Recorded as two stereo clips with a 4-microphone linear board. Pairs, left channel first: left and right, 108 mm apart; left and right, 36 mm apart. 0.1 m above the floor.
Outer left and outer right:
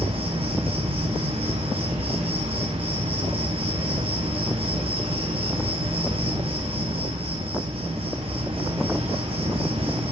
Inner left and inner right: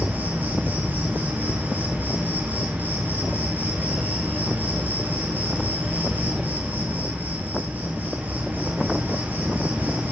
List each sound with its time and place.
0.0 s an insect: 55° right (ahead or behind), 5 m